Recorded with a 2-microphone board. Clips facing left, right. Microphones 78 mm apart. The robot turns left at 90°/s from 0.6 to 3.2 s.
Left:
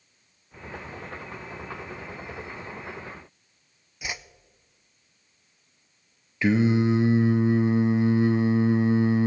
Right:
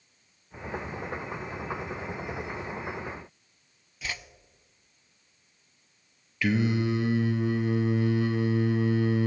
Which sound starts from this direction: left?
Singing, at 6.4 s.